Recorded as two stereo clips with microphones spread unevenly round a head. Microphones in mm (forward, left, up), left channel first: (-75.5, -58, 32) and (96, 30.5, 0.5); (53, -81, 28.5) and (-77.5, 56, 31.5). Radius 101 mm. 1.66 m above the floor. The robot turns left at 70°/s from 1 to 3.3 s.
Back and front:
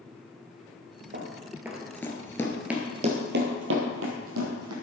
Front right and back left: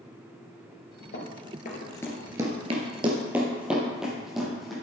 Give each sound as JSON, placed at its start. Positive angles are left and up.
{"t": 1.1, "sound": "running footsteps", "azimuth_deg": -10, "distance_m": 2.5}